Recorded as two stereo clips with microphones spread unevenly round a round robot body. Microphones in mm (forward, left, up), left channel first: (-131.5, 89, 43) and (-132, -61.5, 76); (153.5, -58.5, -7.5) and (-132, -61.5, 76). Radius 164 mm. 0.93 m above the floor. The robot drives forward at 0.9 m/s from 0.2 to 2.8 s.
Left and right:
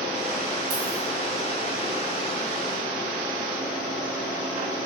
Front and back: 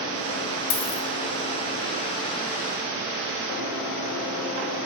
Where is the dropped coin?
25° right, 1.0 m; by 1.0 s 35° right, 0.8 m.